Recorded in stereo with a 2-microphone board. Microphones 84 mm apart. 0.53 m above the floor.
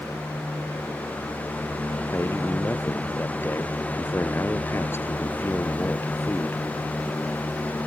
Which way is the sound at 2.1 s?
25° left (ahead or behind).